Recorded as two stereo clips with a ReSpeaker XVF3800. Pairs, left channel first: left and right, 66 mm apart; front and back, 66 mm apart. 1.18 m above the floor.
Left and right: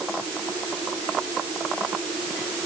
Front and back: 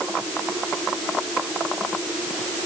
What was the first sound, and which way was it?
Only background noise.